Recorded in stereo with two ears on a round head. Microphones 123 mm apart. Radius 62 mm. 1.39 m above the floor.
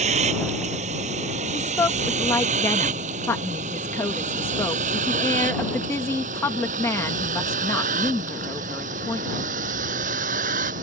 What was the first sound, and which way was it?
A vehicle, 50° right (ahead or behind).